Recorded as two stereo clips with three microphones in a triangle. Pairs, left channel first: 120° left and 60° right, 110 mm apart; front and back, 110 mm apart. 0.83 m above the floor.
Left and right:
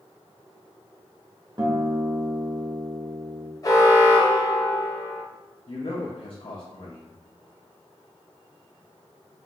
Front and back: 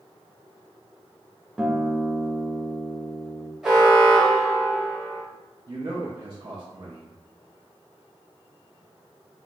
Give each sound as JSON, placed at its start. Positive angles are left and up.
{"t": 1.6, "sound": "a guitar", "azimuth_deg": -100, "distance_m": 0.6}
{"t": 3.6, "sound": "an alarm", "azimuth_deg": 100, "distance_m": 0.9}
{"t": 5.7, "sound": "a man speaking", "azimuth_deg": 140, "distance_m": 0.6}